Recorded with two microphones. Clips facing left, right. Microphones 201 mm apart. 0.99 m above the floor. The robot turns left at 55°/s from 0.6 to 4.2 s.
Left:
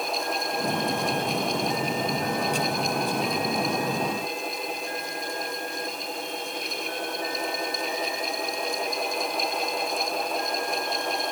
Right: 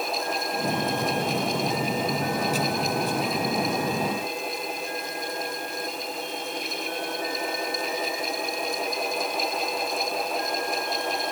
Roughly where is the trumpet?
I don't hear a trumpet.